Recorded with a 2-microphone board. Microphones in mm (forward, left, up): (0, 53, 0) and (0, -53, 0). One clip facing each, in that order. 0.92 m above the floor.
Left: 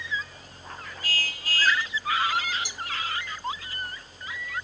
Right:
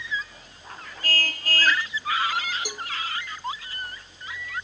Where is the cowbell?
55° right (ahead or behind).